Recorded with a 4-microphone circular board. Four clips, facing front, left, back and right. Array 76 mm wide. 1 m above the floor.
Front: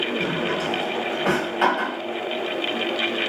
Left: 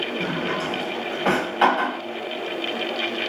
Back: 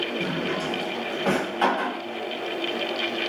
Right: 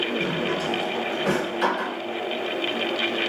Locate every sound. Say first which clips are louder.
0.2 s a drawer: even, front 3 dB; 80° left, 1.3 m